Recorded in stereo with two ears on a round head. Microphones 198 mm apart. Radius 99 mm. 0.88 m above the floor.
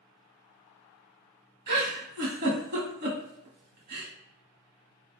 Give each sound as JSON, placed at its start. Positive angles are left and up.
{"t": 1.7, "sound": "a giggle", "side_deg": -50, "distance_m": 1.4}